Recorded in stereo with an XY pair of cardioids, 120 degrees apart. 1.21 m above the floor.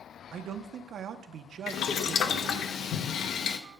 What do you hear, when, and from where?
0.3 s a man speaking: 55° right, 0.7 m
1.7 s boiling: 70° left, 0.7 m